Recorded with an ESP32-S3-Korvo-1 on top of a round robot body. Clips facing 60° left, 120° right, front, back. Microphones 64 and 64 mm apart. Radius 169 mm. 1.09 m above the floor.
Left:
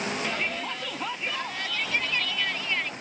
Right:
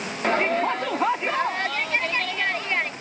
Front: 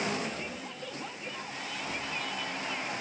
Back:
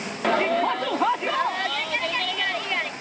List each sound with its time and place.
0.2 s a shout: 165° right